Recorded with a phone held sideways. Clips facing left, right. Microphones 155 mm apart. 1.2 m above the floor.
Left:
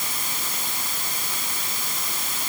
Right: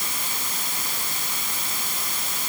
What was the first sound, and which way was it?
Only background noise.